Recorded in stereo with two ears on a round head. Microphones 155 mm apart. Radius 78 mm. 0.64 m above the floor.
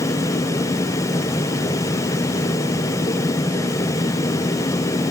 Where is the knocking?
I don't hear knocking.